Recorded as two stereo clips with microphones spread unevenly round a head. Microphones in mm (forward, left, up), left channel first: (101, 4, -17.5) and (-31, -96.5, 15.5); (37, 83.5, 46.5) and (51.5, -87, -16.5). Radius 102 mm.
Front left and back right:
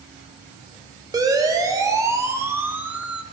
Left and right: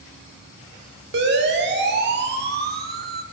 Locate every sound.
1.1 s a siren: 75° right, 4.5 m; by 3.2 s 55° right, 2.5 m